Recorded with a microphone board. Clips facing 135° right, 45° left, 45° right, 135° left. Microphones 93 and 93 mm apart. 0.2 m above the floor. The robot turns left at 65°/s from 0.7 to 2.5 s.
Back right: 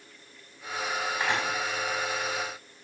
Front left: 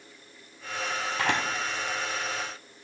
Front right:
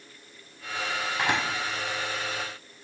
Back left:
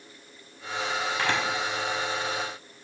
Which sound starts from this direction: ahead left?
A camera shutter, at 1.2 s.